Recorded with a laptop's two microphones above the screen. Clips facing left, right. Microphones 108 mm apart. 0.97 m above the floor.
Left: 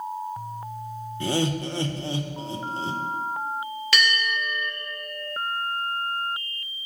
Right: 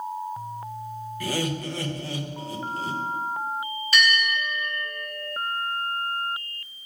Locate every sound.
1.2 s laughter: 25° left (ahead or behind), 0.6 m
3.9 s a bell: 75° left (ahead or behind), 2.5 m